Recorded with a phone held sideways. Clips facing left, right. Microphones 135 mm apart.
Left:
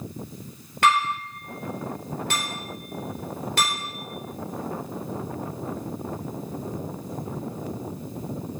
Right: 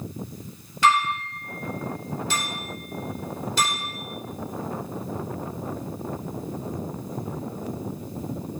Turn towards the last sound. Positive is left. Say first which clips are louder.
# right 1 dB
turn(degrees=60)  # may be behind; listen again after turning